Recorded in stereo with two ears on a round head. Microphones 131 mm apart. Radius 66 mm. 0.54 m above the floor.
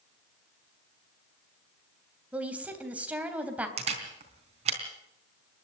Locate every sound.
2.3 s a woman speaking: 10° right (ahead or behind), 3 m
3.8 s a camera shutter: 45° right (ahead or behind), 3.5 m